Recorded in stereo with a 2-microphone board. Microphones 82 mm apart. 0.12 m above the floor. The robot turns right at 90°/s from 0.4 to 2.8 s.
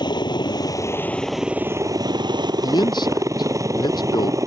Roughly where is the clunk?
I don't hear a clunk.